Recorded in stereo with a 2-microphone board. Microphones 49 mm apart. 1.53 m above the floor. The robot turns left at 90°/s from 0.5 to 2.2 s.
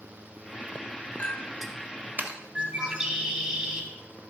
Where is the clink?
25° left (ahead or behind), 0.9 m; by 2.4 s 35° right (ahead or behind), 0.9 m.